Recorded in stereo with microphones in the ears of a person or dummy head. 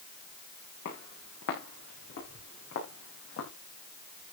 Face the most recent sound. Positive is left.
turn(degrees=75)  # may be behind; listen again after turning